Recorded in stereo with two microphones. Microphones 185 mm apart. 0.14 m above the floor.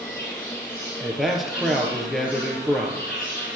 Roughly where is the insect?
Left.